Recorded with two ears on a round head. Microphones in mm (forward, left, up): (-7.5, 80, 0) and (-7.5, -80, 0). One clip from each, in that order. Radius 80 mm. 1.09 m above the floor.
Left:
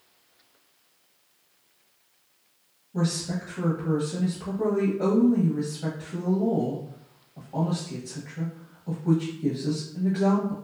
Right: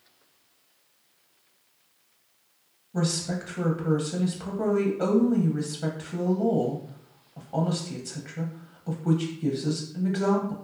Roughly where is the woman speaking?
Right.